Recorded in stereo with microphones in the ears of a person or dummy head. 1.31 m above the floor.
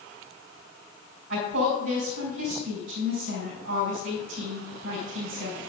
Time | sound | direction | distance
1.3 | a woman speaking | 80° right | 4 m